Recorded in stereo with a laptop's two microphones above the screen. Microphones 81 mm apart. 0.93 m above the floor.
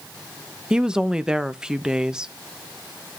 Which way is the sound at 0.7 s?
10° right (ahead or behind).